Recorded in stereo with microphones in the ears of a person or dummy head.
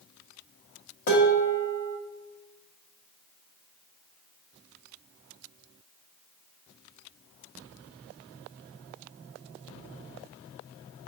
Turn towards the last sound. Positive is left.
turn(degrees=60)  # may be behind; listen again after turning